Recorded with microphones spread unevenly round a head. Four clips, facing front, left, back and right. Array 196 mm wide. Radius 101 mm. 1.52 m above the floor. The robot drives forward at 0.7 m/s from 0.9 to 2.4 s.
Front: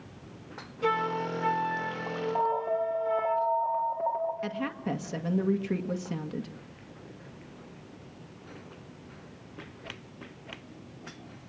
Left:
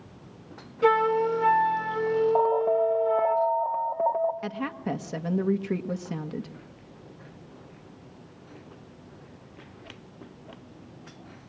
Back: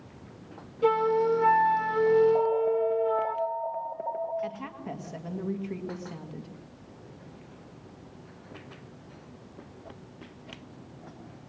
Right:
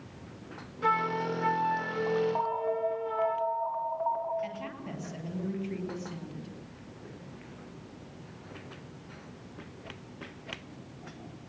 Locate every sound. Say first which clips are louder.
0.8 s a flute: left 7 dB, back 6 dB; 125° left, 0.8 m; by 3.4 s 155° left, 1.6 m
2.4 s an alarm: left 8 dB, back 3 dB; 105° left, 1.8 m; by 4.3 s 110° left, 1.8 m
4.4 s a woman speaking: left 6 dB, front 3 dB; 50° left, 1.8 m